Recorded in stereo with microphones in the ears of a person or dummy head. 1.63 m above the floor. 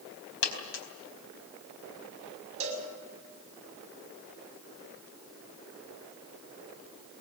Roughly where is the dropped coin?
Left.